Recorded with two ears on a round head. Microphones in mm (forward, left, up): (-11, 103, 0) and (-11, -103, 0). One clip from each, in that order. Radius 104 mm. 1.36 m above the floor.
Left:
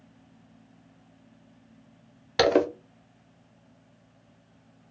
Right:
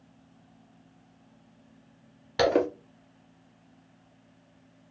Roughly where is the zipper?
Centre.